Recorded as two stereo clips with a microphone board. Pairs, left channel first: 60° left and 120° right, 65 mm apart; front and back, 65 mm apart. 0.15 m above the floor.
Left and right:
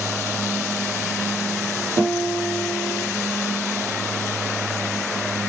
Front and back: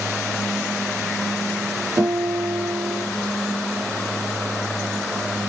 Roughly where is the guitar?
Behind right.